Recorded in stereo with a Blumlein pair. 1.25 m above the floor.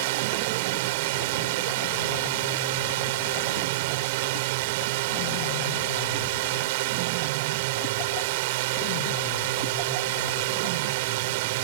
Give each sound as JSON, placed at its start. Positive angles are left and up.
{"t": 0.0, "sound": "a drone", "azimuth_deg": -50}